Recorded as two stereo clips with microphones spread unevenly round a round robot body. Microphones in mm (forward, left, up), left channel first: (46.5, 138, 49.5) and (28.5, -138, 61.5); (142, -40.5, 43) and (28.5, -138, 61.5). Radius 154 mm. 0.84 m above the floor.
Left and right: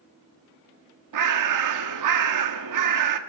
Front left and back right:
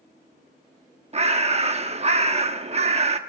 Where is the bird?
90° right, 1.7 m.